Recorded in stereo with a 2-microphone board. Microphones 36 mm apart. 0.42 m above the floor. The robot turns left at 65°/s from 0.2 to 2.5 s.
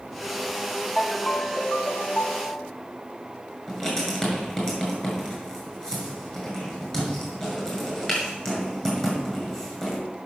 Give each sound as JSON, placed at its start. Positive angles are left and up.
{"t": 1.0, "sound": "a ringtone", "azimuth_deg": 180, "distance_m": 1.3}
{"t": 3.7, "sound": "writing", "side_deg": 20, "distance_m": 6.0}